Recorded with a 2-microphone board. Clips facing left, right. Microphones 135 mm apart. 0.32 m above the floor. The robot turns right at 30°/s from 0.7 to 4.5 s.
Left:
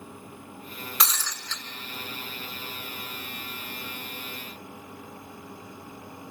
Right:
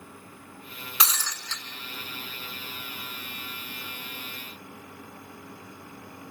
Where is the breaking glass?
5° right (ahead or behind), 2 m; by 1.6 s 20° right (ahead or behind), 2 m.